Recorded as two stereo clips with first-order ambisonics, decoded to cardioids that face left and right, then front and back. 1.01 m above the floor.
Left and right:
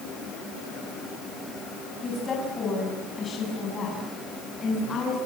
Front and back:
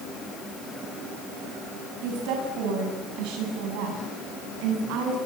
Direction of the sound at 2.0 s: 160° left.